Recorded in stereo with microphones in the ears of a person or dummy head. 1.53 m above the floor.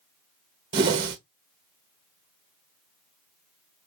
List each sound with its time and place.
0.7 s a whoosh: 25° right (ahead or behind), 0.8 m